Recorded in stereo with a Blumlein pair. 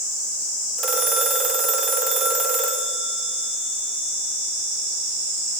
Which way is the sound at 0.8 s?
20° right.